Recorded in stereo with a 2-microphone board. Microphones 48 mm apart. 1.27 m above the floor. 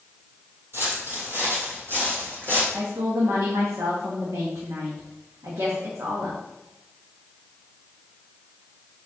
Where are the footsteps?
50° right (ahead or behind), 2 m; by 2.6 s 45° right (ahead or behind), 3.5 m.